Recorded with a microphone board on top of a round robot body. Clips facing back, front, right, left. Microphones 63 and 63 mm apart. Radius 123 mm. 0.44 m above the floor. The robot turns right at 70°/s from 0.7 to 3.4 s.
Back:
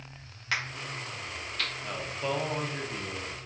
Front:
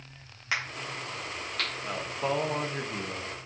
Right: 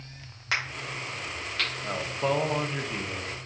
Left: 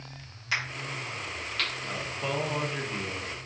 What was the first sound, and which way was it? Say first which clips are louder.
A crack: front 1 dB, right 1 dB; 70° right.